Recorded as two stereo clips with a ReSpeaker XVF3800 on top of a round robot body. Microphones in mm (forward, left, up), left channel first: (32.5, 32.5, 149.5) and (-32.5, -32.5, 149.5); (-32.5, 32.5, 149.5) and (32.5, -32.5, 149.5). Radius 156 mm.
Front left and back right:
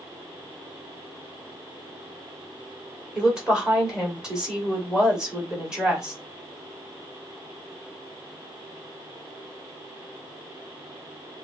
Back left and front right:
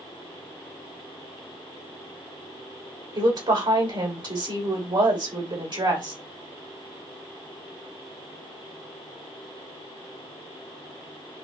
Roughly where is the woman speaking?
Ahead right.